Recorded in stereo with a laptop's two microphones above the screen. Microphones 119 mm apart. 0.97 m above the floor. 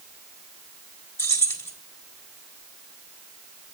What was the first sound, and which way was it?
Keys jangling, 20° left (ahead or behind).